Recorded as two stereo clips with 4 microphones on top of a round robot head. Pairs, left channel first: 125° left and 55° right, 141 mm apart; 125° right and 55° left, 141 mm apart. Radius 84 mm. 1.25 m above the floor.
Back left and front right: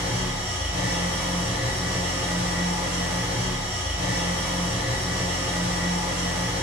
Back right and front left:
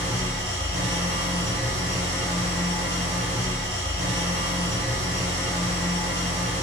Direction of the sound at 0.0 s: 25° left.